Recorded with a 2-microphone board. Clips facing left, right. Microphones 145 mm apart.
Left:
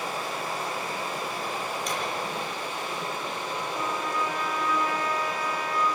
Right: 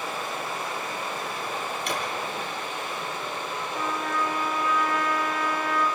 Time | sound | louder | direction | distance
0.0 | running water | even | 35° left (ahead or behind) | 9 m
1.9 | a drawer | right 3 dB | 65° right (ahead or behind) | 4 m
3.7 | a trumpet | right 2 dB | 60° right (ahead or behind) | 3.5 m